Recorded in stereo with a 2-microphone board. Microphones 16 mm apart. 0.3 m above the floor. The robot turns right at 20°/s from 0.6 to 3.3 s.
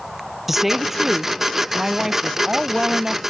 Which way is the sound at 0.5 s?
170° right.